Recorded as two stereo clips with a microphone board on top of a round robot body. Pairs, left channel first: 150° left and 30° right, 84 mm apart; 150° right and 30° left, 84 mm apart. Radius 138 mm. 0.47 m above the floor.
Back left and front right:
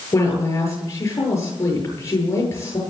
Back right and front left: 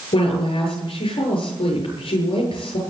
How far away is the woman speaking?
About 9 m.